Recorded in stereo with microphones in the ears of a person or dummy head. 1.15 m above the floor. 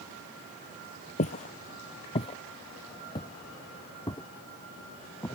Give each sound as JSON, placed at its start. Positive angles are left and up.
{"t": 1.2, "sound": "footsteps", "side_deg": 40}